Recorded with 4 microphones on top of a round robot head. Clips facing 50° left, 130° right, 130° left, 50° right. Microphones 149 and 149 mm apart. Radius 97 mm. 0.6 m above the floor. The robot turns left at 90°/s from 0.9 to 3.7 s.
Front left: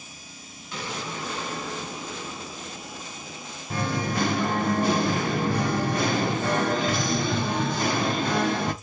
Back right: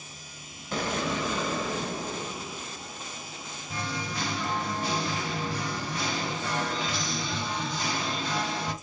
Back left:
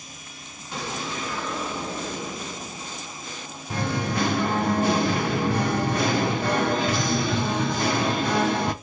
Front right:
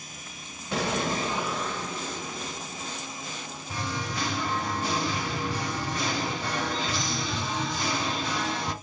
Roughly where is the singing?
Left.